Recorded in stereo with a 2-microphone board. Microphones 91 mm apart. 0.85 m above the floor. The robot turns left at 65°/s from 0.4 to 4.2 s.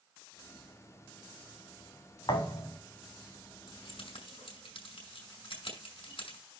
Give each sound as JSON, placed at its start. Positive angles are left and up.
{"t": 2.3, "sound": "a thud", "azimuth_deg": 60, "distance_m": 3.0}
{"t": 3.7, "sound": "keys jangling", "side_deg": 70, "distance_m": 5.5}